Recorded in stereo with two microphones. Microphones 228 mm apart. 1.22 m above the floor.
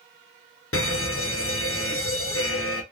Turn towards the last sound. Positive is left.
turn(degrees=65)  # may be behind; listen again after turning